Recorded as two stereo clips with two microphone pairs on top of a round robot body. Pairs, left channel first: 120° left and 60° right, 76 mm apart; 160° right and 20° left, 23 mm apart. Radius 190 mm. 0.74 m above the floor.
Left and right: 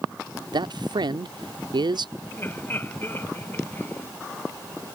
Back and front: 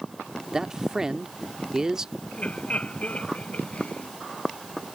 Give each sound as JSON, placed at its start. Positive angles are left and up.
{"t": 0.5, "sound": "a man speaking", "azimuth_deg": -45}
{"t": 2.3, "sound": "laughter", "azimuth_deg": 180}